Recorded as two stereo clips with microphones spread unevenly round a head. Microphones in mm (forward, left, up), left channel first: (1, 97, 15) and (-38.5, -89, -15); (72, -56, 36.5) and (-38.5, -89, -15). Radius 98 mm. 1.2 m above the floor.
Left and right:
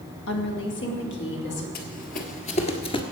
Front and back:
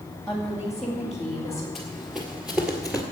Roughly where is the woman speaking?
Left.